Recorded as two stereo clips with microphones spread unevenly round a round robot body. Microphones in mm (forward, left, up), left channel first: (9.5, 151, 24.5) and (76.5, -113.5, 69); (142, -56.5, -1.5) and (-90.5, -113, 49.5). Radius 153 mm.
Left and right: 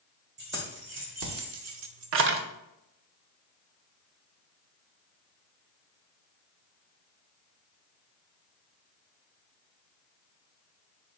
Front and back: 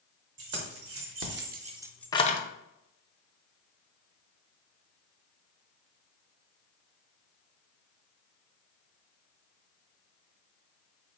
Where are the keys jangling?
135° right, 1.3 m; by 2.4 s 15° right, 0.6 m.